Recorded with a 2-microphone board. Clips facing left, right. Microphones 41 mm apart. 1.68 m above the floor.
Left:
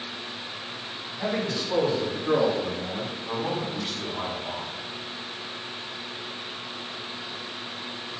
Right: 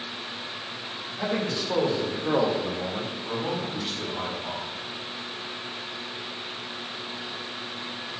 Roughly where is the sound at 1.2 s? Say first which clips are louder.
Even; right.